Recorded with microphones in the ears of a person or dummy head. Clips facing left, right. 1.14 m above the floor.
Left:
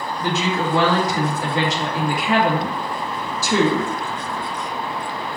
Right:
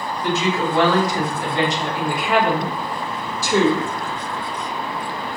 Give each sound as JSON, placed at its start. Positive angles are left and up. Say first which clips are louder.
{"t": 0.2, "sound": "a woman speaking", "louder": "right 1 dB", "side_deg": 65, "distance_m": 1.5}